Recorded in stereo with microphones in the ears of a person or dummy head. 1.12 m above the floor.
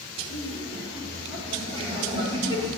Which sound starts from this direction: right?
Laughter, at 0.2 s.